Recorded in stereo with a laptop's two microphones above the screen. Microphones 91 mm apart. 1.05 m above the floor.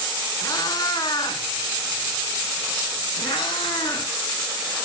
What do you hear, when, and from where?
0.4 s a cat meowing: 40° left (ahead or behind), 2.5 m; by 4.1 s 60° left (ahead or behind), 2.5 m